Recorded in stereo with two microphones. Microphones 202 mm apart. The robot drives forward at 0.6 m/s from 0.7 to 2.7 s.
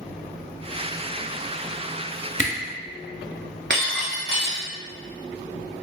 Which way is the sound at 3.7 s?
55° right (ahead or behind).